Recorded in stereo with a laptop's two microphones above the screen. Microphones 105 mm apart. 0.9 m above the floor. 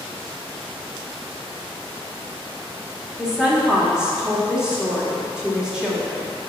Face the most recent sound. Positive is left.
turn(degrees=-10)  # may be behind; listen again after turning